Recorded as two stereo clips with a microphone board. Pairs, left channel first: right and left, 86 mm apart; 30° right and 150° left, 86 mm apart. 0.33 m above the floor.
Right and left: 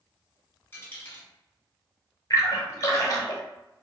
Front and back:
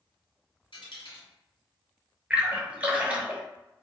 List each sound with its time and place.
0.7 s a dropped coin: 25° right, 1.1 m
2.3 s a splash: 135° right, 0.9 m